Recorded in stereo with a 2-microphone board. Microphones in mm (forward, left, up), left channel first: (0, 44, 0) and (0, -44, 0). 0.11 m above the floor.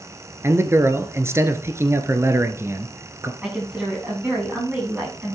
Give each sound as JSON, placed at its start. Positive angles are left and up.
{"t": 0.4, "sound": "a man speaking", "side_deg": -30, "distance_m": 1.3}
{"t": 3.4, "sound": "a woman speaking", "side_deg": -15, "distance_m": 9.0}